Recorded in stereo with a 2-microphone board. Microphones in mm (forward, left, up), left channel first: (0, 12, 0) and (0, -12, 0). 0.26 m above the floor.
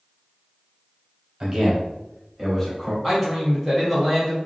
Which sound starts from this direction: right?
A man speaking, at 1.4 s.